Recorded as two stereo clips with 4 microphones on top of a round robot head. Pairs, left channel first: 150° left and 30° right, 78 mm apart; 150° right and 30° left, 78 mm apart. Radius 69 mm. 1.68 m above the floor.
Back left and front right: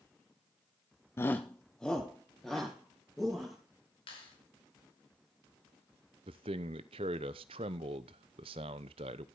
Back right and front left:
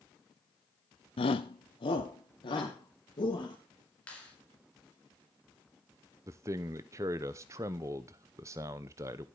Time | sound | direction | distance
1.2 | a shout | 150° right | 0.5 m
4.1 | a clap | 135° left | 4.5 m
6.3 | a man speaking | 20° right | 0.7 m